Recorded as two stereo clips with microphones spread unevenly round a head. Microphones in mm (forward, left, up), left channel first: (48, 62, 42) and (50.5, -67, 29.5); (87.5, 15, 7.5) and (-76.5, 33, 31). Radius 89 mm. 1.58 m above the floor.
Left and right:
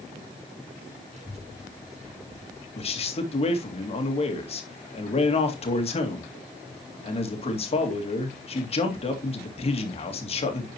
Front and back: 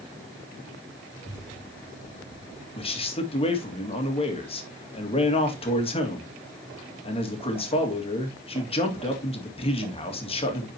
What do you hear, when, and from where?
1.1 s a child speaking: 55° right, 3 m
2.8 s a man speaking: 50° left, 2.5 m